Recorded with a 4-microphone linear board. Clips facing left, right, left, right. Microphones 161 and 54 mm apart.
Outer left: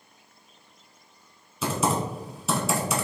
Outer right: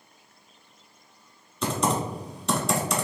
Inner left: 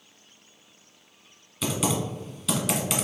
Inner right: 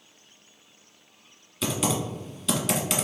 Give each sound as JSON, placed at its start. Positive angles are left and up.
{"t": 1.6, "sound": "typing on a keyboard", "side_deg": 5, "distance_m": 0.9}